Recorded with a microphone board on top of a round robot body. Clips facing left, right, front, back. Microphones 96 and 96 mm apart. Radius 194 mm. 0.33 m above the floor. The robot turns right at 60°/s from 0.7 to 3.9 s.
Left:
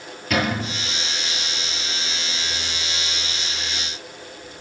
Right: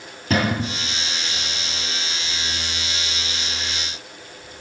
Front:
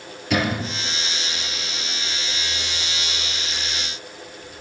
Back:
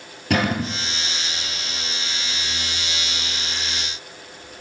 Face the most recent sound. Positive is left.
turn(degrees=40)